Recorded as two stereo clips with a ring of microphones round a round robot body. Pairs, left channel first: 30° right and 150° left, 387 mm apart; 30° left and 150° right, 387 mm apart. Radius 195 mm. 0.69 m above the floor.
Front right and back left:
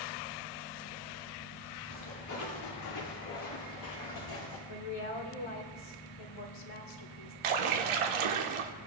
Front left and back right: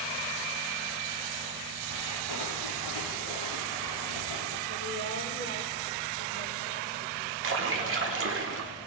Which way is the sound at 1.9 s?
20° left.